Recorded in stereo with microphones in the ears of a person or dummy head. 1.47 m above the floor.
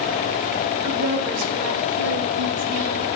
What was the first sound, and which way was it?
A woman speaking, 80° right.